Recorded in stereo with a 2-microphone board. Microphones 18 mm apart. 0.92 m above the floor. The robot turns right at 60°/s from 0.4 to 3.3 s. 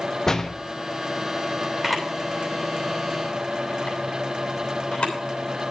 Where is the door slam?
30° left (ahead or behind), 0.9 m; by 0.5 s 25° left (ahead or behind), 0.9 m.